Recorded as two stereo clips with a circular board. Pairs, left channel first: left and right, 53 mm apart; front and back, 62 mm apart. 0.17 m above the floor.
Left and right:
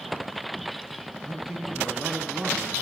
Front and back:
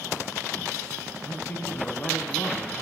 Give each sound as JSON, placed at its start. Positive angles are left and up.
{"t": 1.2, "sound": "a man speaking", "azimuth_deg": -10, "distance_m": 1.6}